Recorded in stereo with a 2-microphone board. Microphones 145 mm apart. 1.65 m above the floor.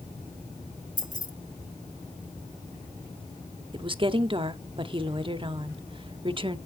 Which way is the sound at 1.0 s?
60° left (ahead or behind).